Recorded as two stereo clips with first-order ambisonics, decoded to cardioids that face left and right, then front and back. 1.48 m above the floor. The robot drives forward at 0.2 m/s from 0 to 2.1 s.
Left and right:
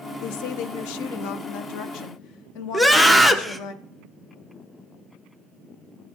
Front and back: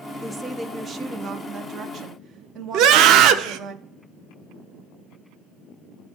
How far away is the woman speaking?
About 0.6 m.